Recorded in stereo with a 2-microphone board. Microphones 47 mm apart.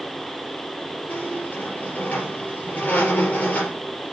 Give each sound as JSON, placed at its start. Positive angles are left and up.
{"t": 1.1, "sound": "a squeak", "side_deg": 30, "distance_m": 4.0}